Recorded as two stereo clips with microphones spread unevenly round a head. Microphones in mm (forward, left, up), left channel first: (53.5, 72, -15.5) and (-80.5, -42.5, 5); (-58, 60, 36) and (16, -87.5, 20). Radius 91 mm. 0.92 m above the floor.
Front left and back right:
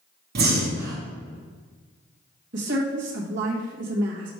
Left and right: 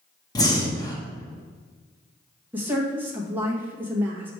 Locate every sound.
0.3 s breathing: 175° right, 1.3 m
2.5 s a woman speaking: 135° right, 1.2 m